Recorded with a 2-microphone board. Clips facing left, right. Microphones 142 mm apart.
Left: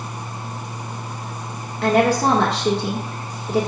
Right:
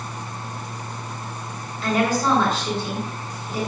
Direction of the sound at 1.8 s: 70° left (ahead or behind).